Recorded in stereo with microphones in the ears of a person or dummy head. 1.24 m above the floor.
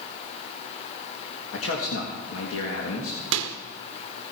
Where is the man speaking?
70° left (ahead or behind), 1.7 m.